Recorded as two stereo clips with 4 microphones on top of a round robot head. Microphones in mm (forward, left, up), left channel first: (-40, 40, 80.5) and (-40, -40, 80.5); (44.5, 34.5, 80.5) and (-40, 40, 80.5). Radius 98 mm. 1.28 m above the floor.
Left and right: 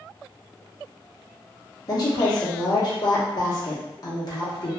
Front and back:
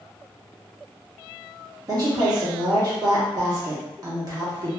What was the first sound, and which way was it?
A woman speaking, 130° left.